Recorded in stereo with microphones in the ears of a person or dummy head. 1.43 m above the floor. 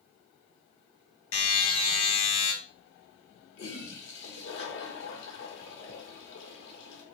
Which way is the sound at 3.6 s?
70° left (ahead or behind).